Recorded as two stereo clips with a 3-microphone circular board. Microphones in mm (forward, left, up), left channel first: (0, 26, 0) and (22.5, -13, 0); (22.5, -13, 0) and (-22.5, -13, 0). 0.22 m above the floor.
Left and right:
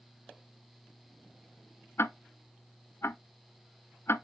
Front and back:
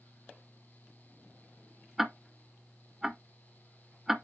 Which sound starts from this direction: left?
Ticking, at 2.0 s.